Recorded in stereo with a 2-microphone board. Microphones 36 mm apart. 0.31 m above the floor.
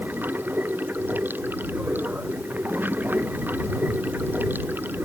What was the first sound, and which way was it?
Running water, 70° right (ahead or behind).